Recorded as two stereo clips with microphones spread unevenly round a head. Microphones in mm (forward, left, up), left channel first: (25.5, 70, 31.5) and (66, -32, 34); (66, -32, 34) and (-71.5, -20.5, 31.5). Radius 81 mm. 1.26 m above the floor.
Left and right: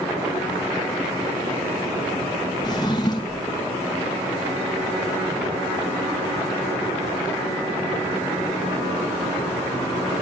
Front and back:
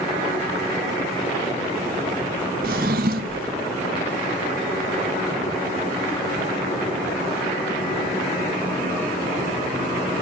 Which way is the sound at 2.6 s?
175° left.